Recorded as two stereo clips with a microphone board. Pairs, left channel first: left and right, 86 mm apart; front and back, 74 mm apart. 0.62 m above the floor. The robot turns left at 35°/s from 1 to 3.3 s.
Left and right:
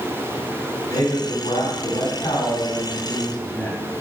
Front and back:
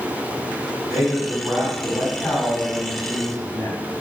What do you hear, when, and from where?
0.9 s a man speaking: 100° left, 3 m; by 3.8 s 20° left, 3 m